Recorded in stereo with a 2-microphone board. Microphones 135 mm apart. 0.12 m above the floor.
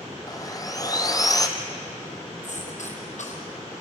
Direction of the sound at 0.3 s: 30° left (ahead or behind).